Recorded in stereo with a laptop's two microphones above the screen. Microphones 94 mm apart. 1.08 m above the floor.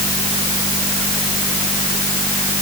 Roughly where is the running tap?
I don't hear a running tap.